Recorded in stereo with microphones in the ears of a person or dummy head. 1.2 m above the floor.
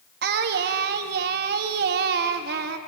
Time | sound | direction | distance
0.2 | singing | 60° right (ahead or behind) | 1.2 m